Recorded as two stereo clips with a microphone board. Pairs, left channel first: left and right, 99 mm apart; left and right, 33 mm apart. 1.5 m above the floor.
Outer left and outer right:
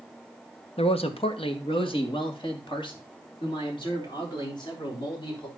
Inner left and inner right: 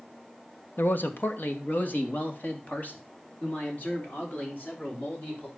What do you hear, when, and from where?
0.8 s a man speaking: 75° left (ahead or behind), 1.2 m; by 5.5 s 50° left (ahead or behind), 5.5 m